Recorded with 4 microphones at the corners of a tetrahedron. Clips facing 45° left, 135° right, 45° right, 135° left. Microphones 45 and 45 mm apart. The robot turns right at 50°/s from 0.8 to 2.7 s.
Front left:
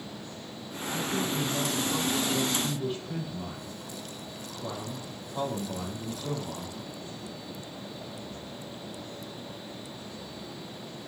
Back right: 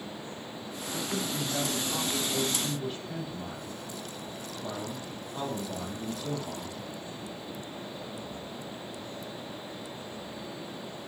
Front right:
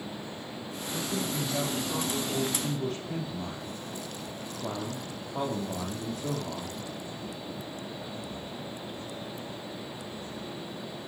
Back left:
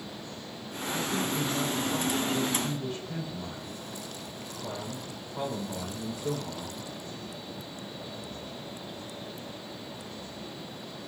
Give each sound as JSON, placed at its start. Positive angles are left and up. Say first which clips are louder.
{"t": 0.9, "sound": "a man speaking", "louder": "front left 3 dB, back left 2 dB", "azimuth_deg": -135, "distance_m": 5.0}